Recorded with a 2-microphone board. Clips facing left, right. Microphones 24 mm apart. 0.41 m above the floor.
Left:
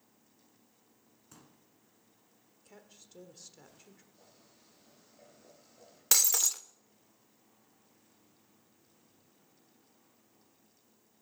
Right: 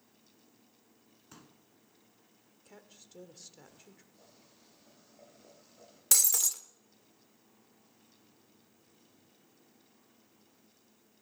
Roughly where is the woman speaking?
Centre.